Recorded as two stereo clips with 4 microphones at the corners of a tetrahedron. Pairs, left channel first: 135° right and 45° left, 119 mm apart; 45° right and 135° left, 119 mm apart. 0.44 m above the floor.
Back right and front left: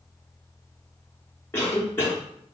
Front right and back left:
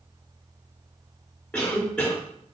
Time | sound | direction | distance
1.5 | a cough | 105° right | 0.7 m